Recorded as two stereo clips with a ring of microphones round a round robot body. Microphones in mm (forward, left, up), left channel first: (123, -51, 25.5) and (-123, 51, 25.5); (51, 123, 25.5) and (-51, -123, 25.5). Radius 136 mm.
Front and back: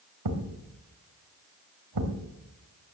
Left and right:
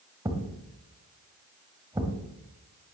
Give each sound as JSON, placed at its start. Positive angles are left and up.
{"t": 0.2, "sound": "a thud", "azimuth_deg": 170, "distance_m": 2.0}